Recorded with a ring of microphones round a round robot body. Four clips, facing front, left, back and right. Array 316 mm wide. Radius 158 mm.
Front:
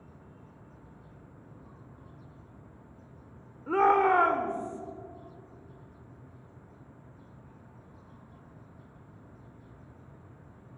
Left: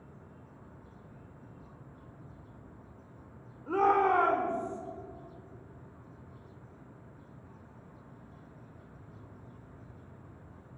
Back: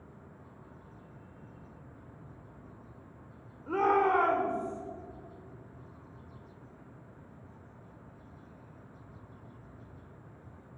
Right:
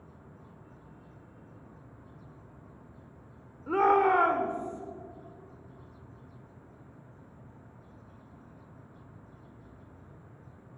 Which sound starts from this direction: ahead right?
A shout, at 3.7 s.